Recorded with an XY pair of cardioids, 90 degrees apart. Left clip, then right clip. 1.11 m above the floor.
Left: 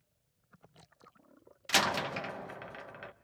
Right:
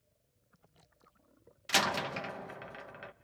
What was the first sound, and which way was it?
A door slam, 10° left.